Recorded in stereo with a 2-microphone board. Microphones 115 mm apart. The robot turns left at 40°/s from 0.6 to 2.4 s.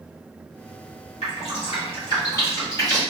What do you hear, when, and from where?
1.2 s dripping: 75° left (ahead or behind), 1.6 m; by 3.0 s 25° left (ahead or behind), 1.6 m